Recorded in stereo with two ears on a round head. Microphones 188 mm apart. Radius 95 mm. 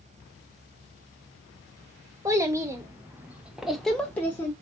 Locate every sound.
2.2 s a child speaking: 15° right (ahead or behind), 1.1 m; by 4.5 s 10° left (ahead or behind), 0.7 m